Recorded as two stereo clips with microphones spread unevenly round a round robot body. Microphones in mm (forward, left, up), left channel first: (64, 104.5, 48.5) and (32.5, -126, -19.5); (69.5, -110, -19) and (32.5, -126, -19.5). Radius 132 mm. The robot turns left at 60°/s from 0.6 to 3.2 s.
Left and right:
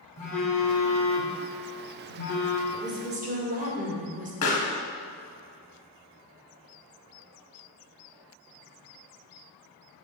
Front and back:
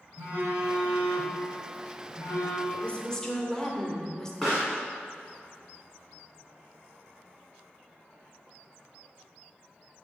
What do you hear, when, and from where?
0.2 s a phone buzzing: 150° left, 1.6 m; by 2.6 s 30° left, 1.6 m
2.7 s a woman speaking: 20° right, 2 m; by 4.3 s 50° right, 2 m
4.4 s a pop: 110° left, 1.2 m